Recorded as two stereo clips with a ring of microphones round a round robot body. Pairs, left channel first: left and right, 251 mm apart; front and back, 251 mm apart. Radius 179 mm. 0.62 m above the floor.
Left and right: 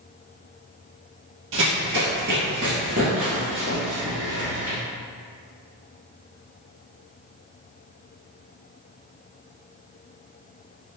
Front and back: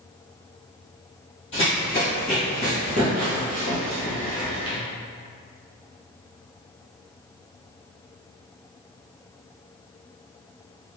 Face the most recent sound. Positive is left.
turn(degrees=165)